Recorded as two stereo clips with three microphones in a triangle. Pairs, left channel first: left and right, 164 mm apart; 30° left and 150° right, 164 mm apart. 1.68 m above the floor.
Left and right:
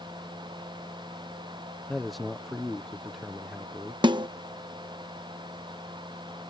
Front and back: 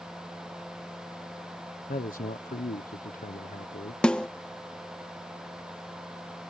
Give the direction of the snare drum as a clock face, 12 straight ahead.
2 o'clock.